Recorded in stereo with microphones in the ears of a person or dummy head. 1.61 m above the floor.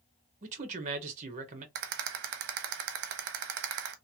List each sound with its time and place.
0.4 s a man speaking: 45° right (ahead or behind), 1.0 m
1.8 s a rattle: 60° right (ahead or behind), 0.7 m